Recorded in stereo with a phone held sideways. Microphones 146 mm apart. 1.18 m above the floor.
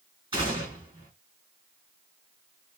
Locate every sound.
0.3 s a gunshot: 35° right (ahead or behind), 2 m